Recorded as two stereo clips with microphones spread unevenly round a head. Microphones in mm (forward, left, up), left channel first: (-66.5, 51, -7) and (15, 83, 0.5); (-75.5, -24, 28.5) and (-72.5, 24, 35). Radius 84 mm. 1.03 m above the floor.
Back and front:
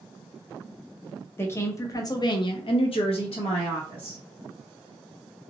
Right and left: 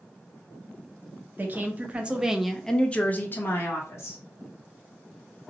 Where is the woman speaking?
140° left, 1.0 m; by 4.2 s 115° right, 1.1 m.